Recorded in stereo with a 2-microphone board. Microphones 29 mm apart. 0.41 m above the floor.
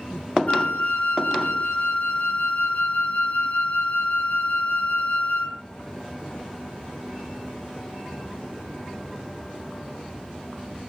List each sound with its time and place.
0.5 s a flute: 55° left (ahead or behind), 0.6 m